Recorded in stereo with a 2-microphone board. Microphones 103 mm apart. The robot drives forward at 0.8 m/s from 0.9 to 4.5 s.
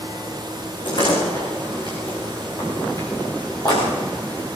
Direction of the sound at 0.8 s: 50° left (ahead or behind).